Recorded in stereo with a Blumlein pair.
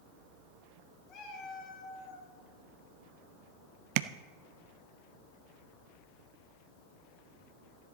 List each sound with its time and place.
1.1 s a cat meowing: 35° left, 1.9 m
4.0 s tapping: 45° right, 0.5 m